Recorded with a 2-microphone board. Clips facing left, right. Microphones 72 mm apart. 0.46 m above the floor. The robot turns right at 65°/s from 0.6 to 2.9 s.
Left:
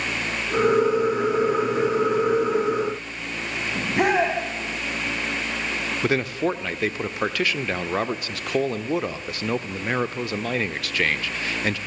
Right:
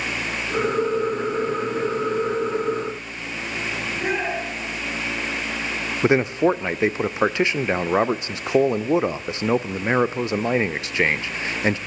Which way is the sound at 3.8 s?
75° left (ahead or behind).